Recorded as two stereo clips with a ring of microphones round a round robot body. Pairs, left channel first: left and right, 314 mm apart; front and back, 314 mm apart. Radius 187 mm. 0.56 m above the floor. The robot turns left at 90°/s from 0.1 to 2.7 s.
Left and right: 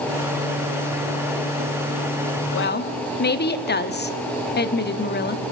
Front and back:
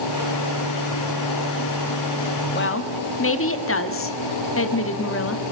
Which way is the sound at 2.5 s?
55° left.